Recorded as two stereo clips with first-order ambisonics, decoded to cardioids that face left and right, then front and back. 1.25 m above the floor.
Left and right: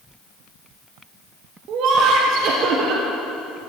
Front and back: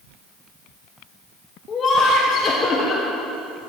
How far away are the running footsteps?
No running footsteps in this recording.